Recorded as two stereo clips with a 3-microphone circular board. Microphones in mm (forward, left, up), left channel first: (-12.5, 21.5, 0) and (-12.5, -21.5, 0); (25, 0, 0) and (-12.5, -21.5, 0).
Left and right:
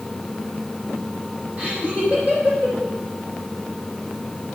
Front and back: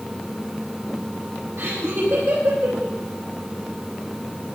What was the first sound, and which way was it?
Laughter, 145° right.